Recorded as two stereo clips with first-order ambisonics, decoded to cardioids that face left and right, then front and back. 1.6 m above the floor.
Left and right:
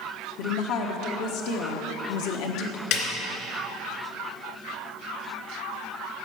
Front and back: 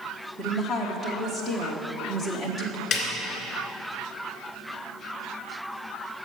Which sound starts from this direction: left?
A woman speaking, at 0.4 s.